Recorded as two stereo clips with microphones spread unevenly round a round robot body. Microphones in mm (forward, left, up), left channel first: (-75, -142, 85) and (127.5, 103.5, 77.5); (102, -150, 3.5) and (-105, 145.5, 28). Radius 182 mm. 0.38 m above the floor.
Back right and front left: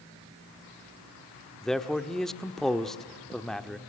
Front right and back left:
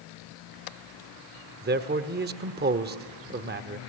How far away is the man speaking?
About 1.1 m.